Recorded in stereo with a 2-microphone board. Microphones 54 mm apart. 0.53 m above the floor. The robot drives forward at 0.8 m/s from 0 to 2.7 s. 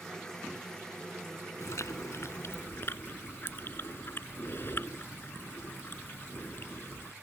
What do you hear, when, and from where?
1.6 s chewing: 65° left (ahead or behind); by 7.1 s 45° left (ahead or behind)